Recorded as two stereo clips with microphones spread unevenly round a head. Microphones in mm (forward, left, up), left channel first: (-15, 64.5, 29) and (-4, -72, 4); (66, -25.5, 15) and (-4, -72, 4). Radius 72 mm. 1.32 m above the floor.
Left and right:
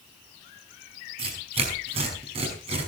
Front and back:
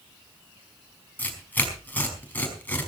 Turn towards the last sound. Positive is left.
turn(degrees=-35)